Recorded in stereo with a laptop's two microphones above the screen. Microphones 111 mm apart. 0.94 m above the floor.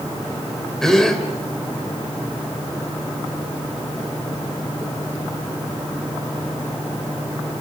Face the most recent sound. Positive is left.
turn(degrees=5)  # may be behind; listen again after turning